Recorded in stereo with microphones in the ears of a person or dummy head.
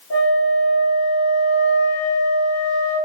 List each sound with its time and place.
0.1 s a flute: 90° left, 1.7 m